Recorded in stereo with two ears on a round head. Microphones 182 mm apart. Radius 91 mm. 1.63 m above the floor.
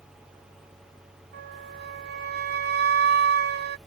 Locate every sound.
1.3 s a flute: 55° right (ahead or behind)